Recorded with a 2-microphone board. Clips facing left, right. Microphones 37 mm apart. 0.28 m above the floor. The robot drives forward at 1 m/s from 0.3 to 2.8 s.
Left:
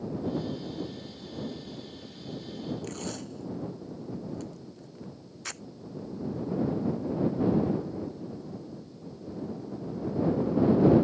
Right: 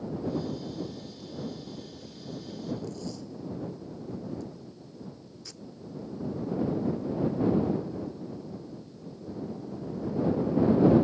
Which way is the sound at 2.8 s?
65° left (ahead or behind).